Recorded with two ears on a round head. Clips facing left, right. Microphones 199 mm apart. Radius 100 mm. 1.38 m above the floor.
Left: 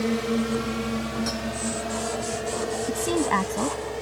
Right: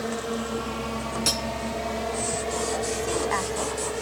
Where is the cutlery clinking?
45° right (ahead or behind).